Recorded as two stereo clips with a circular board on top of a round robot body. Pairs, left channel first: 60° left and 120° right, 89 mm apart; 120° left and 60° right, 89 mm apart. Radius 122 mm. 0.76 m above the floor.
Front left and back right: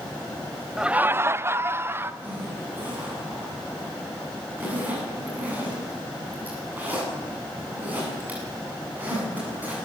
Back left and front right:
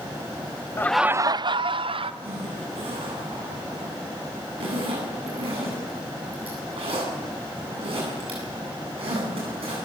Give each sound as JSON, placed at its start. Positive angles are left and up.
{"t": 0.8, "sound": "laughter", "azimuth_deg": 160, "distance_m": 0.6}
{"t": 2.2, "sound": "a zipper", "azimuth_deg": -50, "distance_m": 9.0}